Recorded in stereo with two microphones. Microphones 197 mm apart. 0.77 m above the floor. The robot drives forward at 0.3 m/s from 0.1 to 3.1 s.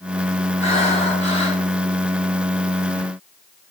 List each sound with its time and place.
0.6 s breathing: 35° left (ahead or behind), 3.5 m; by 1.6 s 30° left (ahead or behind), 3.5 m